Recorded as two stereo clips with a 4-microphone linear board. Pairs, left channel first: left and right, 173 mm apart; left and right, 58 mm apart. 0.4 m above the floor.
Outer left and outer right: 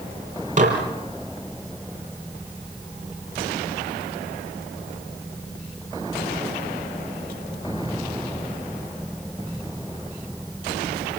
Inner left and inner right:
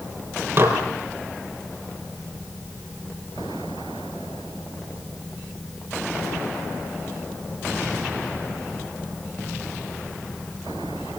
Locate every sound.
0.6 s dishes clattering: 45° right (ahead or behind), 6 m